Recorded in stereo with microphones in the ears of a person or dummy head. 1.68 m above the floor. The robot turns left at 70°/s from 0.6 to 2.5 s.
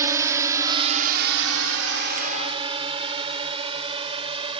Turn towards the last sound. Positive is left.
turn(degrees=-30)  # may be behind; listen again after turning